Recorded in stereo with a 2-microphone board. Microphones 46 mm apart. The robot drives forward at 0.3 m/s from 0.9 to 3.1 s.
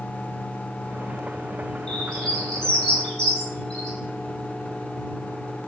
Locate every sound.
1.9 s a bird: 15° left (ahead or behind), 1.5 m; by 4.0 s 20° left (ahead or behind), 1.5 m